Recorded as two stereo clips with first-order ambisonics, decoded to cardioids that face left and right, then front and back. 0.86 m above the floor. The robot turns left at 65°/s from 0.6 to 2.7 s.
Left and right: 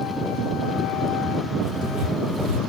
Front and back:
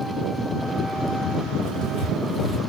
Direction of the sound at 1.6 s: 15° right.